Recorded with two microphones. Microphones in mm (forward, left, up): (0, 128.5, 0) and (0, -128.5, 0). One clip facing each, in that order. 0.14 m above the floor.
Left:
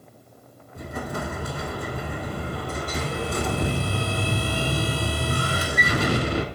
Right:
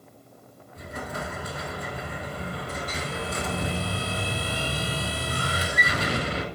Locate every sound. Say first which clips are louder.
0.8 s an explosion: left 4 dB; 55° left (ahead or behind), 0.5 m